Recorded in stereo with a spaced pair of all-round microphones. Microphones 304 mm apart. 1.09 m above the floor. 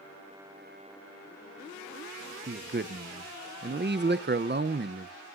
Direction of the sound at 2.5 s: 35° right (ahead or behind).